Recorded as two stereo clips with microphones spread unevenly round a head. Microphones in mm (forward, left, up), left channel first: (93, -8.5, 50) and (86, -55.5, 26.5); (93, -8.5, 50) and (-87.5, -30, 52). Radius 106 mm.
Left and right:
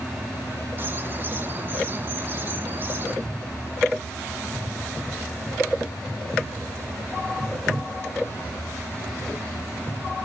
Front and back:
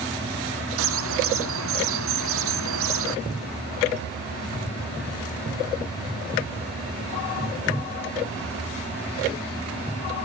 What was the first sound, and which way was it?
A bird, 160° right.